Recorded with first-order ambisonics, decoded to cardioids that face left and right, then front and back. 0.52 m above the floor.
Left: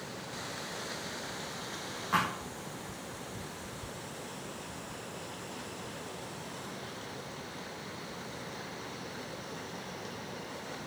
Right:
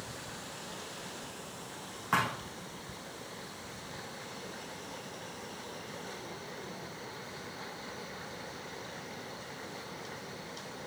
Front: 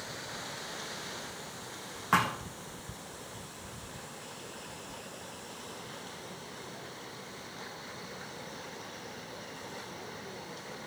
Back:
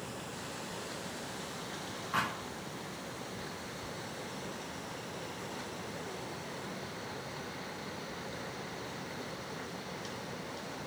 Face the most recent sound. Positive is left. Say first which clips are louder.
# even, front 6 dB
turn(degrees=-20)